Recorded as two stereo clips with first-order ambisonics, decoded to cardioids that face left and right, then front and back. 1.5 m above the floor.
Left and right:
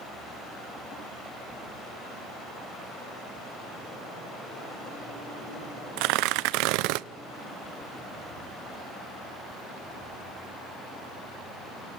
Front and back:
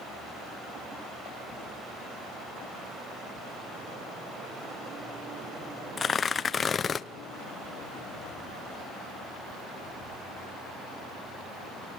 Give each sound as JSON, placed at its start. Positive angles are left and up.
{"t": 6.0, "sound": "tearing paper", "azimuth_deg": -70, "distance_m": 0.6}